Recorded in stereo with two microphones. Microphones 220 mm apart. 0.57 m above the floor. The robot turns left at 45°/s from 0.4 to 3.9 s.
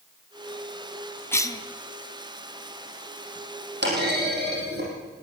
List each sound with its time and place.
1.3 s a cough: 10° left (ahead or behind), 1.1 m; by 1.6 s 20° left (ahead or behind), 1.1 m
3.8 s a clunk: 55° right (ahead or behind), 6 m; by 4.9 s 50° right (ahead or behind), 6 m